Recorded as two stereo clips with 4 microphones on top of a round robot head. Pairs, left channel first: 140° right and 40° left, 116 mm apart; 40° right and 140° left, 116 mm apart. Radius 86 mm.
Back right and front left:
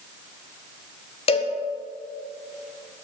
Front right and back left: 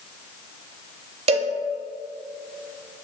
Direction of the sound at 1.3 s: Straight behind.